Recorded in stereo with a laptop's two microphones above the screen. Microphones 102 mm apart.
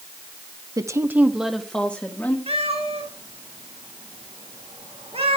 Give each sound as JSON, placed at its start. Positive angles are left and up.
{"t": 0.8, "sound": "a woman speaking", "side_deg": -35, "distance_m": 0.9}
{"t": 2.5, "sound": "a cat meowing", "side_deg": -75, "distance_m": 3.0}